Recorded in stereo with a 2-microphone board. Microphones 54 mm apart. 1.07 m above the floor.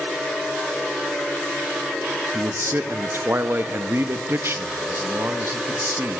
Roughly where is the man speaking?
Right.